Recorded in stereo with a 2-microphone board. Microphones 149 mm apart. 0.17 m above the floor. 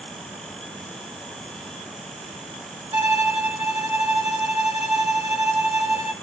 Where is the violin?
45° right (ahead or behind), 2.5 m.